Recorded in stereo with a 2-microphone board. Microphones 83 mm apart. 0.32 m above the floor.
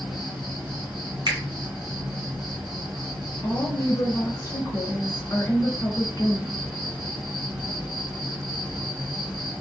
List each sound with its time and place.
0.0 s an insect: 5° right (ahead or behind), 2.5 m
1.3 s a finger snap: 60° right (ahead or behind), 2 m
3.4 s a woman speaking: 45° left (ahead or behind), 1.7 m